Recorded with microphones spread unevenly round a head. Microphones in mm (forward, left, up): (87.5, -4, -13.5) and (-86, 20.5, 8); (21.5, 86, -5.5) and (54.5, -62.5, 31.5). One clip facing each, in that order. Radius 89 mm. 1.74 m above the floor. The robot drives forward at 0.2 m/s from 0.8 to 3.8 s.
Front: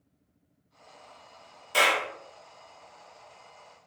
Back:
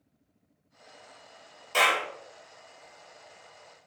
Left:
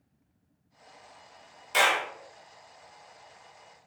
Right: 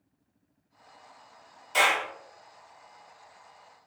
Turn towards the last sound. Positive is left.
turn(degrees=85)